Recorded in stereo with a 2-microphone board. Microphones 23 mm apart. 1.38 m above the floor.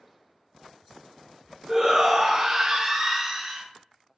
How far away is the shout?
About 0.6 m.